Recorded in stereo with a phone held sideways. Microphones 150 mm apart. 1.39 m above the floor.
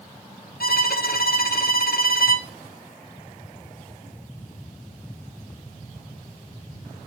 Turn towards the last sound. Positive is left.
turn(degrees=80)